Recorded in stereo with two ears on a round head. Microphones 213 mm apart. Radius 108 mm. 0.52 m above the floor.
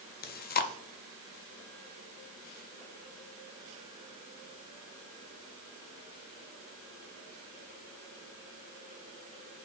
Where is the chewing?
40° left (ahead or behind), 0.5 m.